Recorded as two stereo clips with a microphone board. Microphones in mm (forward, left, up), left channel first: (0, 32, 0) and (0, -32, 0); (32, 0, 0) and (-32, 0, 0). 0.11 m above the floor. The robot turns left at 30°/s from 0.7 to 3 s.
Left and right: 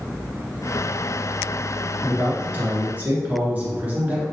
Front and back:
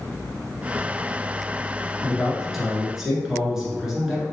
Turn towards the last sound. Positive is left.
turn(degrees=-105)